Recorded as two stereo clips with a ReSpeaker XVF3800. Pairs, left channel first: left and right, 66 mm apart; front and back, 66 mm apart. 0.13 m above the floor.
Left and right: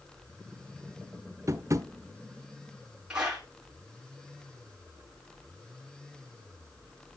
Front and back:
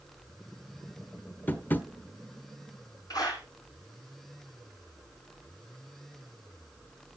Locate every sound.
1.5 s tapping: 60° right, 1.0 m
3.1 s a clap: 15° right, 8.5 m